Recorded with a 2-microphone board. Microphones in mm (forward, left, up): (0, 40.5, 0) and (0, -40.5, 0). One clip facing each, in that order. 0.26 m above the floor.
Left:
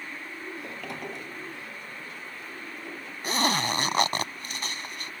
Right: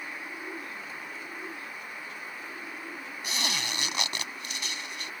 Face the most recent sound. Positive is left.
turn(degrees=45)  # may be behind; listen again after turning